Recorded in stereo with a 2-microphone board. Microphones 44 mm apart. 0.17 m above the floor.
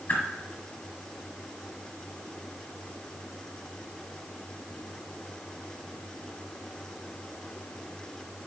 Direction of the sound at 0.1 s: 45° left (ahead or behind).